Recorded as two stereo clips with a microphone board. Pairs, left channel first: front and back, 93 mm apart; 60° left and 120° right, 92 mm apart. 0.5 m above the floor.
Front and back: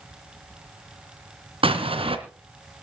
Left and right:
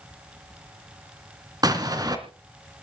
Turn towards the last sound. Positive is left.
turn(degrees=-165)